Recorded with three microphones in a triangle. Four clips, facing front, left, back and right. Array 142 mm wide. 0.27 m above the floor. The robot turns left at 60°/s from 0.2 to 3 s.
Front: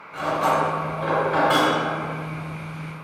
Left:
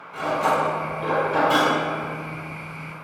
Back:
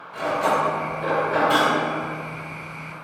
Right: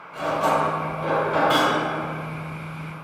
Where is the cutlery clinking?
35° left, 1.5 m; by 1.7 s 60° right, 1.5 m.